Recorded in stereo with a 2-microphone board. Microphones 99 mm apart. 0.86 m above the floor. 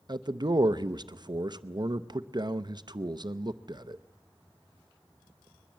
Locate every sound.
0.1 s a man speaking: 45° right (ahead or behind), 0.6 m